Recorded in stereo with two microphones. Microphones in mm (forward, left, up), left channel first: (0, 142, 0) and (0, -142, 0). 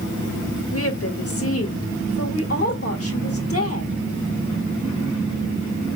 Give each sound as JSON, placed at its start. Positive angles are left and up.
{"t": 0.7, "sound": "a woman speaking", "side_deg": 50, "distance_m": 1.7}